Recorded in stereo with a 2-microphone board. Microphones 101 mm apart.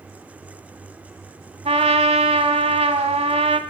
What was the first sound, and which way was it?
A trumpet, 85° right.